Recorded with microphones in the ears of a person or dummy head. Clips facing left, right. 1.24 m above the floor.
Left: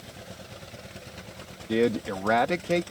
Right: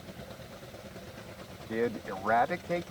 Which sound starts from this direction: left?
A man speaking, at 1.7 s.